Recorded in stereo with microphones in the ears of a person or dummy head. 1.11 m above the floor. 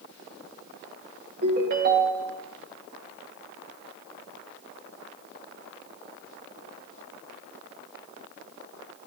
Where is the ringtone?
60° right (ahead or behind), 2 m.